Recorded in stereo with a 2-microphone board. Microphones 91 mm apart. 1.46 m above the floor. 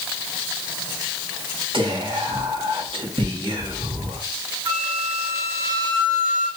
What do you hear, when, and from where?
1.7 s whispering: 70° right (ahead or behind), 1.4 m
4.7 s a flute: 60° right (ahead or behind), 3 m